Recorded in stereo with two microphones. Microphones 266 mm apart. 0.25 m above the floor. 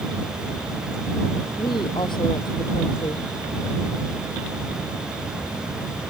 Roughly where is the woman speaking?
Centre.